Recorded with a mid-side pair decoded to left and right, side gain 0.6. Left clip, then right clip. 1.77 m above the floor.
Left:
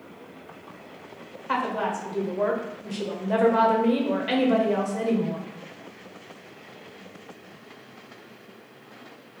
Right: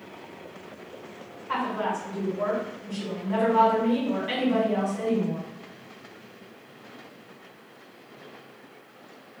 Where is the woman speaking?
45° left, 1.6 m.